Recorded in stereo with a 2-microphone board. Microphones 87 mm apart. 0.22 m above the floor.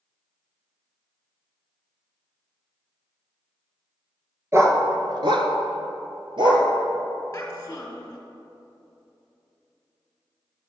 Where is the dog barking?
35° right (ahead or behind), 1.0 m; by 6.7 s 60° right (ahead or behind), 1.5 m.